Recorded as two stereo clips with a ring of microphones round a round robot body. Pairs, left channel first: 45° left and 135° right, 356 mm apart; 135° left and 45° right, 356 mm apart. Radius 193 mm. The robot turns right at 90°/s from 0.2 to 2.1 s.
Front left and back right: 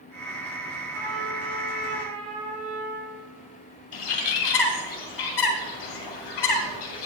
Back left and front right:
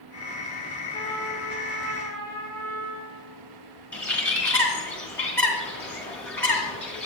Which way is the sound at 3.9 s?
50° left.